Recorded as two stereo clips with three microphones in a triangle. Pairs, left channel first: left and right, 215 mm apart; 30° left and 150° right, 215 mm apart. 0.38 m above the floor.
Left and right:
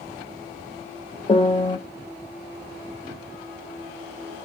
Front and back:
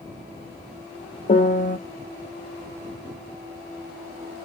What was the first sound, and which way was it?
A piano, 40° left.